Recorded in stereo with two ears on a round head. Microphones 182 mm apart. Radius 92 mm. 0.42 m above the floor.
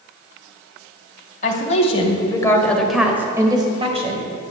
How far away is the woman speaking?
About 2.5 m.